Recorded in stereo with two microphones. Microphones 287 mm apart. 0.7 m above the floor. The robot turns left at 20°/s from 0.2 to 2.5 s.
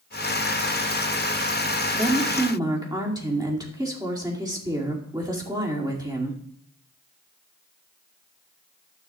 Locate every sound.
1.9 s a woman speaking: 5° right (ahead or behind), 2 m; by 6.4 s 15° right (ahead or behind), 2 m